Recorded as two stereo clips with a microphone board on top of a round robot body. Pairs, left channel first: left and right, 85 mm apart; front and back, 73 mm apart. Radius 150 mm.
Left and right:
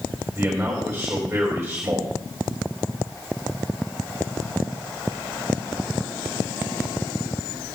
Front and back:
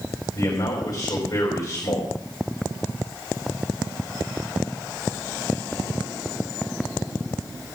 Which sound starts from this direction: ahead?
A man speaking, at 0.3 s.